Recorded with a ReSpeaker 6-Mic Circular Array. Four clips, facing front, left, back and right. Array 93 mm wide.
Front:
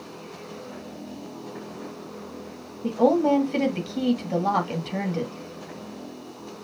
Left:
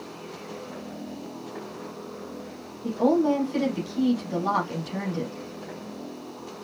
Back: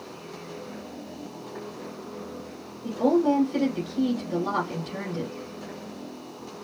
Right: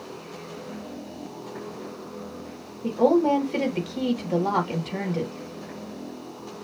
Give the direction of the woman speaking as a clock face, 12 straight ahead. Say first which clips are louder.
Right 2 dB, front 2 dB; 2 o'clock.